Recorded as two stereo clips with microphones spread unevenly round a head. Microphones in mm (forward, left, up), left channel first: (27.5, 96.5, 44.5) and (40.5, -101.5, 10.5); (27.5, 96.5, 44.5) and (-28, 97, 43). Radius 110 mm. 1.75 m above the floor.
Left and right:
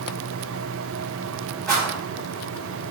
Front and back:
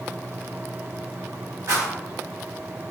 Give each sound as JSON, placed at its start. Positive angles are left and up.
{"t": 1.7, "sound": "a rattle", "azimuth_deg": 170, "distance_m": 1.0}